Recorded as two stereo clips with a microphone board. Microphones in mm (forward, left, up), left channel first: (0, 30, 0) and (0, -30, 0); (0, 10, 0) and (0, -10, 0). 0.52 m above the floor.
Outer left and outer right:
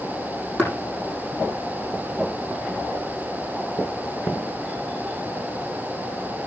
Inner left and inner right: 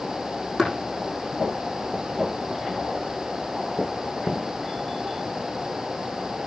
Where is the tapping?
20° left (ahead or behind), 8 m.